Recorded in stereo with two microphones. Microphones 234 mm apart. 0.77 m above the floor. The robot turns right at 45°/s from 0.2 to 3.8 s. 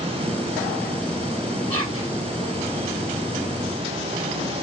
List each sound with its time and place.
1.7 s whispering: 75° right (ahead or behind), 2 m; by 2.1 s 60° right (ahead or behind), 2 m